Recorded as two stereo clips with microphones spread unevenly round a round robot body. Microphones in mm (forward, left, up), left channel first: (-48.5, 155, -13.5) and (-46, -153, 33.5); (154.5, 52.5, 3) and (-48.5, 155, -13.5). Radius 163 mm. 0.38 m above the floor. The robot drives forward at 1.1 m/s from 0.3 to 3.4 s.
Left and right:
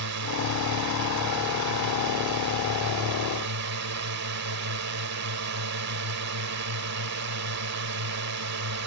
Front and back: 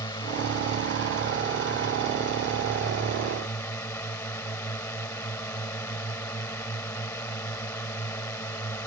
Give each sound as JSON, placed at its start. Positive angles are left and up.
{"t": 0.0, "sound": "a drone", "azimuth_deg": -100}